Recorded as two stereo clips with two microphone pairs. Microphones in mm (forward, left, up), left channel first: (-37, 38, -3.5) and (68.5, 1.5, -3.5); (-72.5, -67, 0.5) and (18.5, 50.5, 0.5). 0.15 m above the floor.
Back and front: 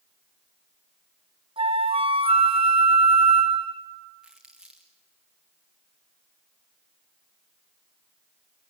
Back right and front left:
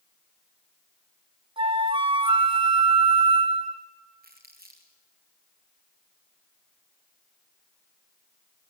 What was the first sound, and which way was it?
A flute, 5° left.